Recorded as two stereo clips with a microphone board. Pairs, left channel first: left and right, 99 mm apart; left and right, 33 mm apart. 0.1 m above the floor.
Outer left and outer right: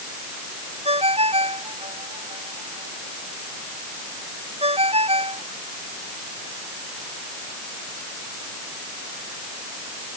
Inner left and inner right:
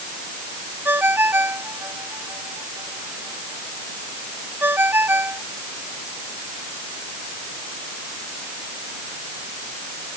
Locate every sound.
0.8 s a ringtone: 85° right